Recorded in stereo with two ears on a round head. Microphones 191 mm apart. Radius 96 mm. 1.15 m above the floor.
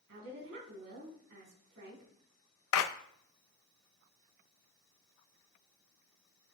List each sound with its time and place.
0.1 s a woman speaking: 65° right (ahead or behind), 3.5 m
2.7 s a clap: 70° left (ahead or behind), 0.7 m